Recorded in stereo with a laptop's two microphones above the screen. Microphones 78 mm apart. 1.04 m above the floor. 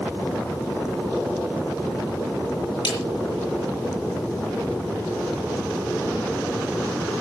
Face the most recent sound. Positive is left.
turn(degrees=60)  # may be behind; listen again after turning